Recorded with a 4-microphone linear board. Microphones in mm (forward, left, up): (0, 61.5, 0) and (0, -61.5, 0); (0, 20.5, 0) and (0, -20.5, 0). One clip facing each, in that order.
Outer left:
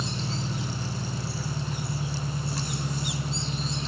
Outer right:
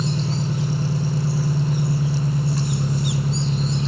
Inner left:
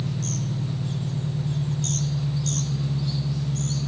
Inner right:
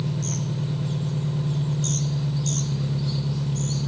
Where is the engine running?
45° right (ahead or behind), 1.1 m.